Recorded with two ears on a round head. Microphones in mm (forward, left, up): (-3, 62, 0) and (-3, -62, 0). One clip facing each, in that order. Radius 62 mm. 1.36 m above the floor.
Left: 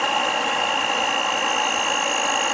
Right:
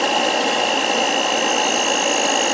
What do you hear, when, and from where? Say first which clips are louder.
0.0 s an insect: right 4 dB; 45° right (ahead or behind)